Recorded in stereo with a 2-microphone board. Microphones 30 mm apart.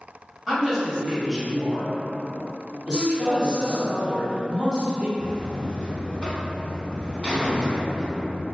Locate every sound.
0.5 s a woman speaking: 10° right (ahead or behind), 1.4 m
2.9 s a man speaking: 25° right (ahead or behind), 1.3 m
5.2 s a buzzer: 35° left (ahead or behind), 0.7 m